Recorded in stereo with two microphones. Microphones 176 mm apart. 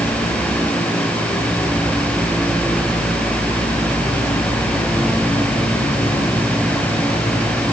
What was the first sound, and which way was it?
Only background noise.